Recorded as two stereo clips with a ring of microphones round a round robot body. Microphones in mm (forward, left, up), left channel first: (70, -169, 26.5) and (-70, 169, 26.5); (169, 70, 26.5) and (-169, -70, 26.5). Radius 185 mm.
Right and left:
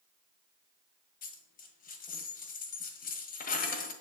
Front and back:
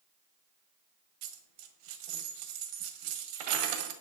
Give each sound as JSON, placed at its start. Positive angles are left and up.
{"t": 1.2, "sound": "a dropped coin", "azimuth_deg": -135, "distance_m": 1.5}